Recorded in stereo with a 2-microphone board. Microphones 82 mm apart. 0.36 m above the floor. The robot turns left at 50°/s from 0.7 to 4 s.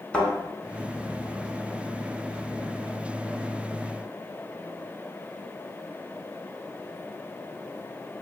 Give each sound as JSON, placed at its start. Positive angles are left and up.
{"t": 0.1, "sound": "a thud", "side_deg": 15, "distance_m": 1.3}